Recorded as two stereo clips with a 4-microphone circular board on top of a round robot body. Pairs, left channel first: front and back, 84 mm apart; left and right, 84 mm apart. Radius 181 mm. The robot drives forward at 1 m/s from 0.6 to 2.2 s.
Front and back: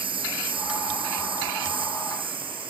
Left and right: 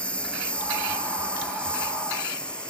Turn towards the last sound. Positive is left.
turn(degrees=170)